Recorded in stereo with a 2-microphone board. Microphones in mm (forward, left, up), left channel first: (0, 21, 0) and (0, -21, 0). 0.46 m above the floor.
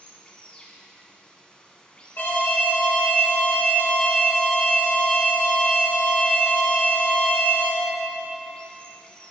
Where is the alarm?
50° left (ahead or behind), 1.2 m.